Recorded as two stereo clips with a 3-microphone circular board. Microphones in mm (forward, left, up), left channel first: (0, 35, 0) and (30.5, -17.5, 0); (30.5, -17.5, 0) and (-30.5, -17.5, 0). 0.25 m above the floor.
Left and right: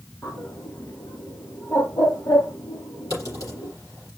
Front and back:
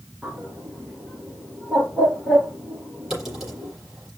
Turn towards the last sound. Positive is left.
turn(degrees=95)